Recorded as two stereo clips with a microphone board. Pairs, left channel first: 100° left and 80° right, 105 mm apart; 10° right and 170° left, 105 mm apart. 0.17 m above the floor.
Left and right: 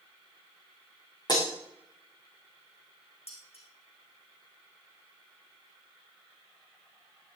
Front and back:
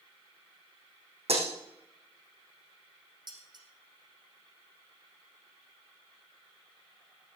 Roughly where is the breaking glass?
Behind left.